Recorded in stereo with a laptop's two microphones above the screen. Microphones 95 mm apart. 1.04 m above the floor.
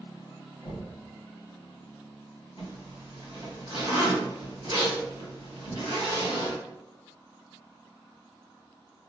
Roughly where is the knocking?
Left.